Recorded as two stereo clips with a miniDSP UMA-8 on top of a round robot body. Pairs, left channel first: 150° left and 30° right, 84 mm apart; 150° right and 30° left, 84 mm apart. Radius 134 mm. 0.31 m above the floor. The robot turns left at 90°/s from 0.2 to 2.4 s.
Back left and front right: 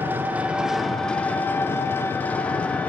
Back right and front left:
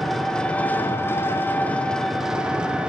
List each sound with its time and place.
0.0 s an engine running: 65° right, 0.7 m; by 2.9 s 100° left, 0.7 m